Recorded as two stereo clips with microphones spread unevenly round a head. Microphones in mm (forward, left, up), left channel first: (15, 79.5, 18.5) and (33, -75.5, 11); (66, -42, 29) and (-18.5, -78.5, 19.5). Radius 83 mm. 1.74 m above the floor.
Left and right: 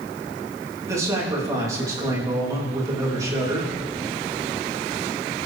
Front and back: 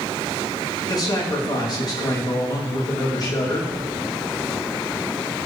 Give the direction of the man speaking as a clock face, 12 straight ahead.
12 o'clock.